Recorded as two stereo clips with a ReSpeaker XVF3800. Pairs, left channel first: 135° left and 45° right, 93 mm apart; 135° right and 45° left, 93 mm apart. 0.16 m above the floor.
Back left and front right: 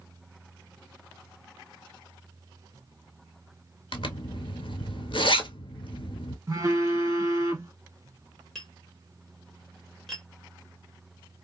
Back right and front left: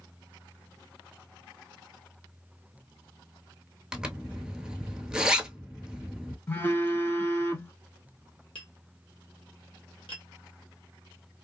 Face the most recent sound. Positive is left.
turn(degrees=-140)